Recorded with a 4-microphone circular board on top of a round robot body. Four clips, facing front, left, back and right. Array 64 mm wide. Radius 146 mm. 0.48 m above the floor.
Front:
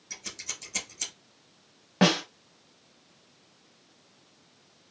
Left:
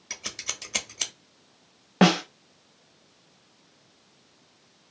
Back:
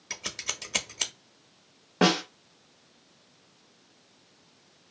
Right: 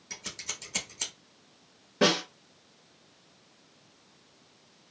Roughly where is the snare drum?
Left.